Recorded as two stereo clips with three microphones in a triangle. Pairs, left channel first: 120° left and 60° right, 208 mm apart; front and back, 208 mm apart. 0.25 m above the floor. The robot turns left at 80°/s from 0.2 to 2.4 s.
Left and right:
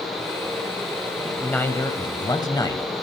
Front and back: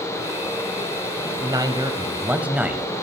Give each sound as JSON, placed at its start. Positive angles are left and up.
{"t": 1.2, "sound": "a man speaking", "azimuth_deg": -155, "distance_m": 0.9}